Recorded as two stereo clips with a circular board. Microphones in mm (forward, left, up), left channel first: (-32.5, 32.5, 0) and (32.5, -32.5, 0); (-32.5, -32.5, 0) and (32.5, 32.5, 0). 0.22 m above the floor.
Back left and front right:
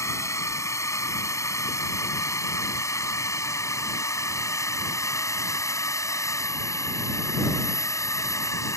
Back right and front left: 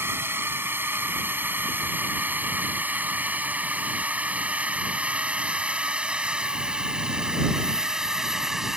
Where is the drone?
100° left; by 8.8 s 125° left.